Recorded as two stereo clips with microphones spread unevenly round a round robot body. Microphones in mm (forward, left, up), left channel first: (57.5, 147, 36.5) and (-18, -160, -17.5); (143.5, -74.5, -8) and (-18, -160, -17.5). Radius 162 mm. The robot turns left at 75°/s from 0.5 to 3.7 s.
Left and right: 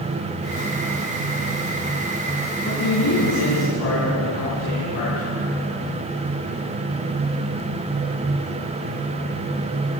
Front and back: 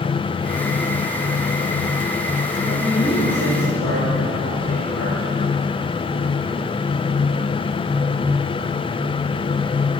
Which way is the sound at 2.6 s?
150° left.